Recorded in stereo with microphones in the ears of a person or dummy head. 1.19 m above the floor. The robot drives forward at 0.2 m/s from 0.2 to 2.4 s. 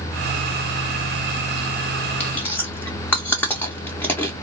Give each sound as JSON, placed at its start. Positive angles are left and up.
{"t": 2.2, "sound": "chewing", "side_deg": 10, "distance_m": 0.6}